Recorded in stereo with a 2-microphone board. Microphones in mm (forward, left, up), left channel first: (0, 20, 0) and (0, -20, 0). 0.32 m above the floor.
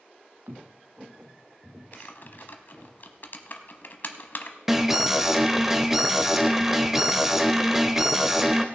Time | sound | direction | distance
0.5 | footsteps | 60° right (ahead or behind) | 0.6 m
1.9 | typing on a keyboard | 55° left (ahead or behind) | 0.9 m
4.7 | an alarm | 5° right (ahead or behind) | 0.7 m